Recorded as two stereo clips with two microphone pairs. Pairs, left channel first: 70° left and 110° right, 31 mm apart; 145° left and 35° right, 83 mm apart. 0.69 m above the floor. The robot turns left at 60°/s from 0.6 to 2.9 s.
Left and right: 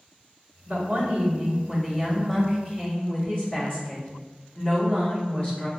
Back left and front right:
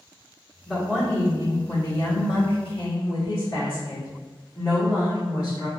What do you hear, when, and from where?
0.7 s a woman speaking: 120° right, 1.4 m; by 5.7 s 105° left, 1.4 m